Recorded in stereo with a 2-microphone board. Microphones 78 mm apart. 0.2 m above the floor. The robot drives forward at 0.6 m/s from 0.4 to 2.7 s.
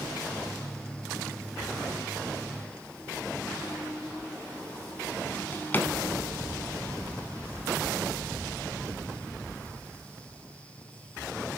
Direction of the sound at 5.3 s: 25° left (ahead or behind).